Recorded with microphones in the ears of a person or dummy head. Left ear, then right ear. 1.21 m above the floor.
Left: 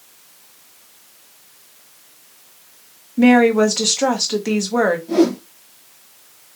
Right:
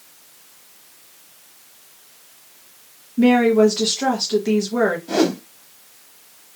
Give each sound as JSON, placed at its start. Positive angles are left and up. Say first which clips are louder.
{"t": 3.2, "sound": "a woman speaking", "louder": "left 2 dB", "side_deg": 30, "distance_m": 1.2}
{"t": 5.1, "sound": "a whoosh", "louder": "left 3 dB", "side_deg": -55, "distance_m": 1.1}